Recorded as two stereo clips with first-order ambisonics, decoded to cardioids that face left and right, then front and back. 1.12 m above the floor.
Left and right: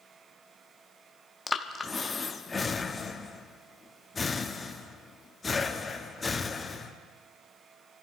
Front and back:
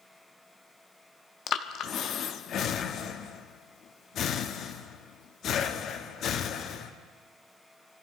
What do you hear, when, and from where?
1.5 s breathing: 25° left, 0.6 m